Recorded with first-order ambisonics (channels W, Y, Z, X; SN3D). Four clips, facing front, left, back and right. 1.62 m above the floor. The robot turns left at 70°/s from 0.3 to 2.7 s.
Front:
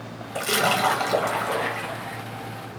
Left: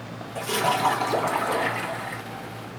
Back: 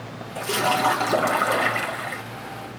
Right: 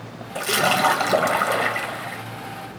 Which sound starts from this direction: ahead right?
A splash, at 0.3 s.